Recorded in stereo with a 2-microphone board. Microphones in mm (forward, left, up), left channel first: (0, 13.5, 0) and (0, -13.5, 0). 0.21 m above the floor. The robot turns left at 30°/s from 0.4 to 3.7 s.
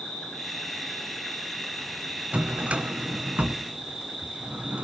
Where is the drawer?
45° right (ahead or behind), 0.7 m; by 4.8 s 65° right (ahead or behind), 0.7 m.